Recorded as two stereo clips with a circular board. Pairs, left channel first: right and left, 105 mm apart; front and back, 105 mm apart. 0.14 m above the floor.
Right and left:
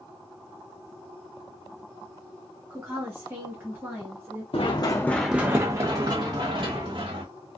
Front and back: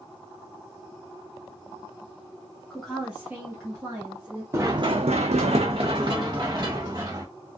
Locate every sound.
2.7 s a woman speaking: 70° left, 1.1 m; by 4.4 s 160° left, 1.5 m
4.5 s running footsteps: 120° right, 0.6 m; by 7.3 s 125° left, 1.7 m